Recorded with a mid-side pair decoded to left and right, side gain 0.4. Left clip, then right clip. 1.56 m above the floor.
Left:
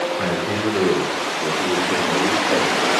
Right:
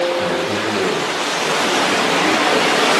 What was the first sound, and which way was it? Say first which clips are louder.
A man speaking: right 3 dB; 35° left.